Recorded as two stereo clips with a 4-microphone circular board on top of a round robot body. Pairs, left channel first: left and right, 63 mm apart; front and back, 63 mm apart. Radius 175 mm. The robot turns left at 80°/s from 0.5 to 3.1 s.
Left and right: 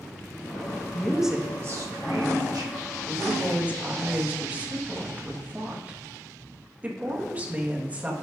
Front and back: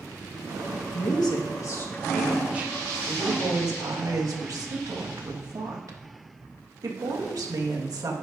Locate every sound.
0.9 s a woman speaking: 20° left, 1.6 m; by 8.1 s 155° right, 1.6 m